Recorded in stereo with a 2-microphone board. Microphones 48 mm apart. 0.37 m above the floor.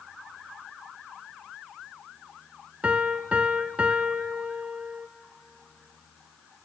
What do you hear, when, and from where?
2.8 s a piano: 30° right (ahead or behind), 0.7 m